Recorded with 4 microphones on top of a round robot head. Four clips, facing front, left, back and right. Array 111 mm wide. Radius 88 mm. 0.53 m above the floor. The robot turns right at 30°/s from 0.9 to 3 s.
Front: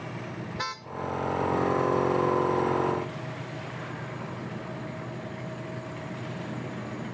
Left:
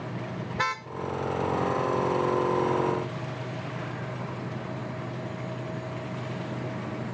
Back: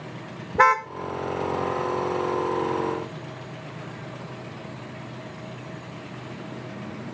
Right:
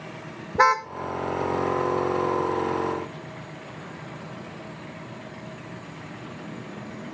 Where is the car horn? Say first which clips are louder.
Right 12 dB, back 21 dB; 140° right.